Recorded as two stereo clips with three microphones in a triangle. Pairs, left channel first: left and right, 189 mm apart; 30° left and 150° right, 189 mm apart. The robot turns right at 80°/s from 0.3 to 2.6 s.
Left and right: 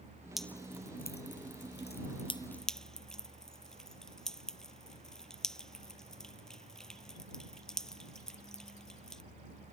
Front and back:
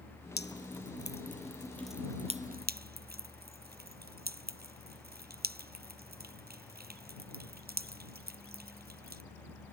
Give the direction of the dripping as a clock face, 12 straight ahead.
12 o'clock.